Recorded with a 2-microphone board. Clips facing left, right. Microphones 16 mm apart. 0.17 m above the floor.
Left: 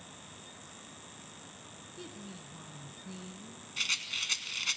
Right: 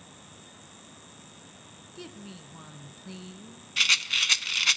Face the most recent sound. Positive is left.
turn(degrees=-40)  # may be behind; listen again after turning